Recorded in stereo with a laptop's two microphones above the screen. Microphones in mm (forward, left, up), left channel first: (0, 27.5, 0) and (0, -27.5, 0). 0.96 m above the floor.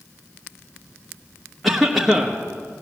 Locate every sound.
1.6 s a cough: centre (ahead or behind), 1.0 m